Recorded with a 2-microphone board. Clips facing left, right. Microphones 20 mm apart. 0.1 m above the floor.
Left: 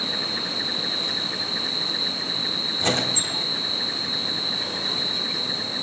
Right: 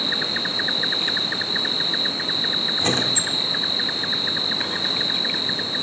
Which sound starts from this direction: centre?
A squeak, at 2.8 s.